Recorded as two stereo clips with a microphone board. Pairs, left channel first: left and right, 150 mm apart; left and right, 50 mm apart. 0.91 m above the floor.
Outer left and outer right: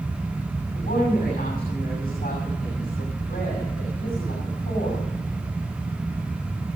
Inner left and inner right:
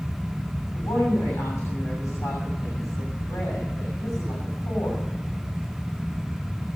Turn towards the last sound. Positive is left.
turn(degrees=75)  # may be behind; listen again after turning